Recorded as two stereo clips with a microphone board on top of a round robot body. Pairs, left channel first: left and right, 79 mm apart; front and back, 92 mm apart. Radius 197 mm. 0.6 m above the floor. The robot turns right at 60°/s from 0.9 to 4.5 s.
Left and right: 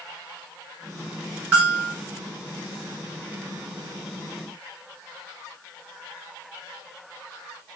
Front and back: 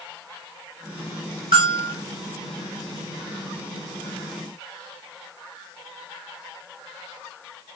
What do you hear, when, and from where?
1.5 s a bell: 160° right, 2 m; by 1.9 s 135° right, 2 m